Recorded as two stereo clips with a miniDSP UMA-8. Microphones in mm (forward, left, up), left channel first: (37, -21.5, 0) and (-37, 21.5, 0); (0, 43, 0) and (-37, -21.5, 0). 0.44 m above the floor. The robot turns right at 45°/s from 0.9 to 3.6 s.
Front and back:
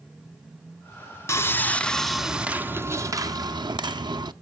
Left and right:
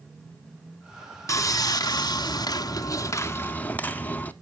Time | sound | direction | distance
1.3 | sawing | 20° left | 0.5 m